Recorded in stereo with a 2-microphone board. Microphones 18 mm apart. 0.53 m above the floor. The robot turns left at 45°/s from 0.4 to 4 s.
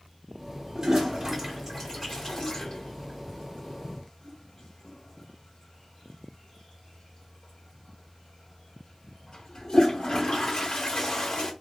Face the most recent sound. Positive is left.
turn(degrees=60)  # may be behind; listen again after turning